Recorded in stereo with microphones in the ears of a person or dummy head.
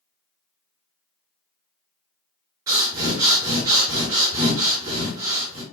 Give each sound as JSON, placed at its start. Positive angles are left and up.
{"t": 2.7, "sound": "breathing", "side_deg": -25, "distance_m": 2.0}